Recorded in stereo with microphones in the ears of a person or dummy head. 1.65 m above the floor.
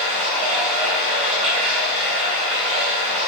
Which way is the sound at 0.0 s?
30° right (ahead or behind).